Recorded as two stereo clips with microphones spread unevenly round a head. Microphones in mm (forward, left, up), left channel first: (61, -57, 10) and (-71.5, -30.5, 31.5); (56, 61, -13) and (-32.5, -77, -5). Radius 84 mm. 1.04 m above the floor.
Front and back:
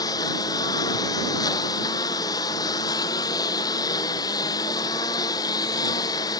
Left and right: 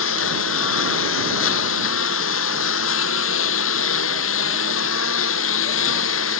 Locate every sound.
0.0 s a lawn mower: 60° left